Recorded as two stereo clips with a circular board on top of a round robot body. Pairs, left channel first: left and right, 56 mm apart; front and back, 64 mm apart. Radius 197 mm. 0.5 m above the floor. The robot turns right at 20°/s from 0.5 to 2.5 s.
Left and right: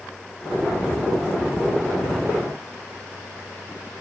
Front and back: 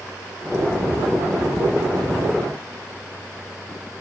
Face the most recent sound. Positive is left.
No sound to turn to.